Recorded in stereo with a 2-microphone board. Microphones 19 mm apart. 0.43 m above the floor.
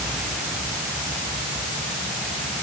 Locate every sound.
Only background noise.